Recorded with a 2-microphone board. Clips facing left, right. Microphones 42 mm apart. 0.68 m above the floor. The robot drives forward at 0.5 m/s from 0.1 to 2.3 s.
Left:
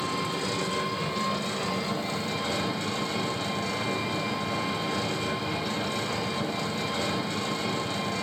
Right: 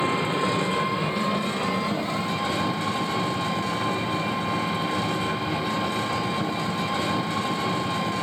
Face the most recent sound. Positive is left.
turn(degrees=-10)  # may be behind; listen again after turning